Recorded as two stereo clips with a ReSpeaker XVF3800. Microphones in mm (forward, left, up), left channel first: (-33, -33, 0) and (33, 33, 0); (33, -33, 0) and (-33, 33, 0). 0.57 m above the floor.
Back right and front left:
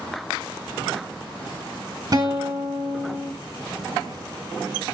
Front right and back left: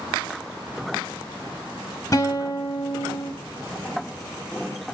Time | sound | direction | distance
2.1 | a guitar | 5° left | 0.6 m